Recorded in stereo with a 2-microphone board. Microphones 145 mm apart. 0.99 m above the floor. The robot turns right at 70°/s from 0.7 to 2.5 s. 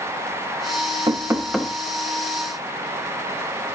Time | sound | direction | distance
1.1 | knocking | 30° right | 1.1 m